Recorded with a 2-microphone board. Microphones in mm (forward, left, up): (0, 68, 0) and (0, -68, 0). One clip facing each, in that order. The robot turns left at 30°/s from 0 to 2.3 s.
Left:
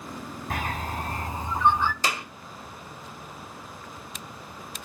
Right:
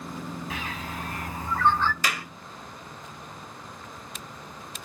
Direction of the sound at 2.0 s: 30° left (ahead or behind).